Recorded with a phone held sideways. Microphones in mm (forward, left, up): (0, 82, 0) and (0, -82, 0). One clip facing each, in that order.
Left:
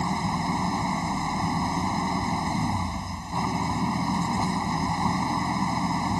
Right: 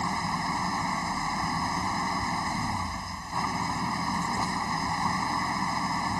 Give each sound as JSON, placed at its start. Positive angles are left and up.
{"t": 0.0, "sound": "an engine running", "side_deg": 20}